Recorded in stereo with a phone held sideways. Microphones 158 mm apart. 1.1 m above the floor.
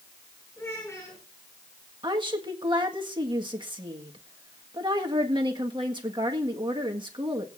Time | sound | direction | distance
0.6 | a child speaking | 20° left (ahead or behind) | 6.5 m
2.0 | a woman speaking | 30° right (ahead or behind) | 1.5 m